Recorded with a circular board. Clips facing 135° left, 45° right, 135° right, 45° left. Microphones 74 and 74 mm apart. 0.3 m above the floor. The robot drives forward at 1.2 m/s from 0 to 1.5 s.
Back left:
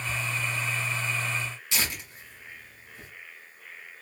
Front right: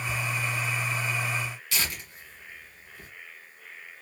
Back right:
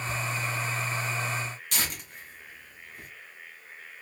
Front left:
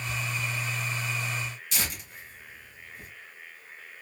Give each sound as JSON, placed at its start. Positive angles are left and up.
{"t": 1.7, "sound": "tearing paper", "azimuth_deg": -160, "distance_m": 1.8}